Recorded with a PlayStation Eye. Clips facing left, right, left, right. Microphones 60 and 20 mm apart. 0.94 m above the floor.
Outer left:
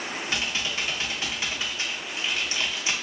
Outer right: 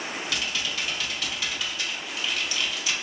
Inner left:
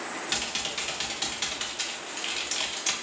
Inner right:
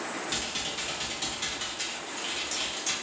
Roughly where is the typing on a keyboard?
Left.